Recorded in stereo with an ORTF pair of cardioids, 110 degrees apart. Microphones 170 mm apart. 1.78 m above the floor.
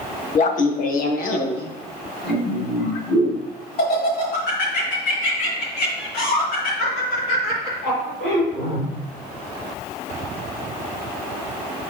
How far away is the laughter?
About 1.4 m.